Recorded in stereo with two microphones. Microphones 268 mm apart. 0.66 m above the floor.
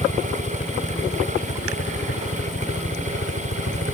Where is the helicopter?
25° left (ahead or behind); by 4.0 s 55° left (ahead or behind).